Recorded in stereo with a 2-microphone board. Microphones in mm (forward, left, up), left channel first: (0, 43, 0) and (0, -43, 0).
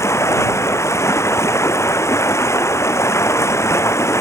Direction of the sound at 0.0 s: 35° left (ahead or behind).